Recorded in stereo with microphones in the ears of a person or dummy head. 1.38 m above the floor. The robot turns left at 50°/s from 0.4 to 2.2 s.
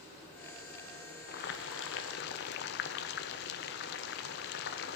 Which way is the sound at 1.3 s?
120° left.